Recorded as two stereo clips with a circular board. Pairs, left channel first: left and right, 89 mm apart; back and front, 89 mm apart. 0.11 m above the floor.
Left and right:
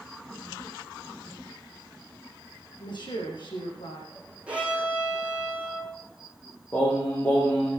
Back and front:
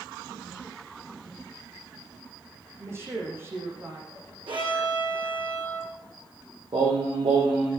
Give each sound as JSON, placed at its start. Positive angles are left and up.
{"t": 2.8, "sound": "a woman speaking", "azimuth_deg": 60, "distance_m": 5.5}
{"t": 4.5, "sound": "a violin", "azimuth_deg": -15, "distance_m": 5.0}
{"t": 6.7, "sound": "singing", "azimuth_deg": 20, "distance_m": 6.0}